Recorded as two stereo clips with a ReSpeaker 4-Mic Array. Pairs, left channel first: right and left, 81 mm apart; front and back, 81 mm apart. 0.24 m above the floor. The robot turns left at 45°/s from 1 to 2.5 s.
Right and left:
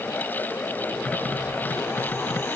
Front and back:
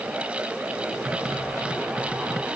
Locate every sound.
Only background noise.